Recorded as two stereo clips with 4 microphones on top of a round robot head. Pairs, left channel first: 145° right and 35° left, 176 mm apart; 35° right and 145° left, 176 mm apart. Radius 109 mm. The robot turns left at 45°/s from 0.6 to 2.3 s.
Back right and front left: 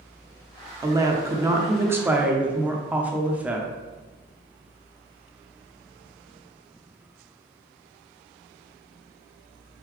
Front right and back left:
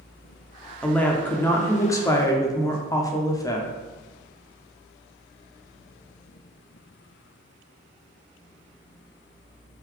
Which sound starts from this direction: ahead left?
A woman speaking, at 0.8 s.